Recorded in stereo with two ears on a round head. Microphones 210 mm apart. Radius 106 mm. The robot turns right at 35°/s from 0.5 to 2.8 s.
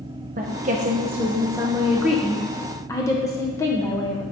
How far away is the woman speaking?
About 0.8 m.